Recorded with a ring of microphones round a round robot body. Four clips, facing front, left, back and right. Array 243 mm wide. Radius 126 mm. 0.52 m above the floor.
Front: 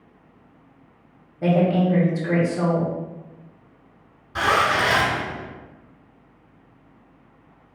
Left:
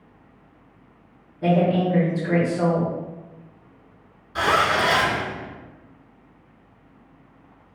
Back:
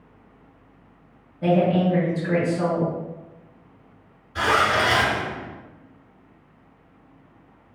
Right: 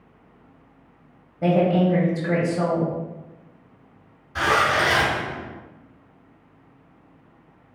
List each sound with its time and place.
1.4 s a woman speaking: 50° right, 1.4 m
4.3 s a zipper: 5° right, 2.0 m